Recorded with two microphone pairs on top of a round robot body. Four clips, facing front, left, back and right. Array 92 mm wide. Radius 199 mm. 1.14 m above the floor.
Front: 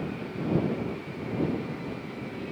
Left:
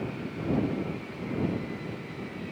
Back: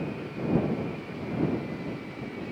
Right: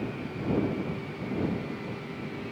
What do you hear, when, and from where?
Only background noise.